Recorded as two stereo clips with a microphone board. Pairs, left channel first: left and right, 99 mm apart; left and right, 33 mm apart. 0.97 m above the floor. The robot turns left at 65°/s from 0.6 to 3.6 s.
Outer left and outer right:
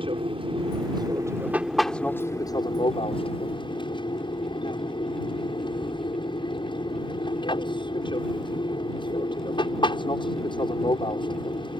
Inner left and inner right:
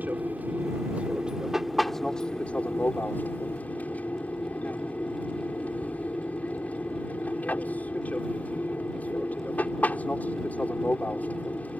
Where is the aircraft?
100° right; by 11.8 s 65° left.